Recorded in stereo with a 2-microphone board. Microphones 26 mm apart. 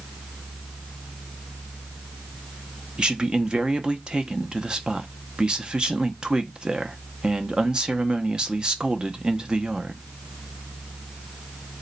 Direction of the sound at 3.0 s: 30° right (ahead or behind).